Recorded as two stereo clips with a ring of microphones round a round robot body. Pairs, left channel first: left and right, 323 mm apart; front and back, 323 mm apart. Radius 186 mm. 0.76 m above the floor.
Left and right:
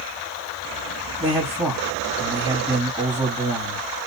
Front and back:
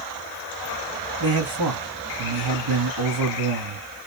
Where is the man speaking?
170° right, 1.8 m.